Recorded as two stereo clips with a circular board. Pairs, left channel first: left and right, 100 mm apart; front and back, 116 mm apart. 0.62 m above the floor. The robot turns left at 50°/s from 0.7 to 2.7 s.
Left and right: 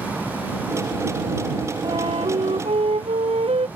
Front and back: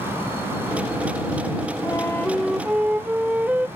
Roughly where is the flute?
Ahead right.